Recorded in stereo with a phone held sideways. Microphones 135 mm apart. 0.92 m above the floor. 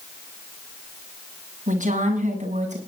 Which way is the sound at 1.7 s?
75° right (ahead or behind).